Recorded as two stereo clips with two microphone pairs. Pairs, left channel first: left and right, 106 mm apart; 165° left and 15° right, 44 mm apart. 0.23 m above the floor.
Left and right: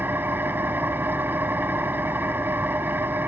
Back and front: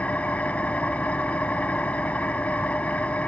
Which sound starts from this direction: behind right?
An engine running, at 0.0 s.